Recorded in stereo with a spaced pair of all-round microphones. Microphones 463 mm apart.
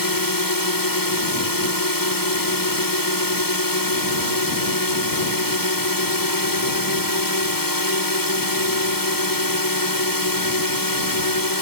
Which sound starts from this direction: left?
A drone, at 0.0 s.